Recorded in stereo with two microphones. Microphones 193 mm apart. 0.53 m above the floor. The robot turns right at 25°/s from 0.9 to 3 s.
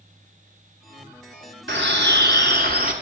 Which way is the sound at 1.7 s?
80° right.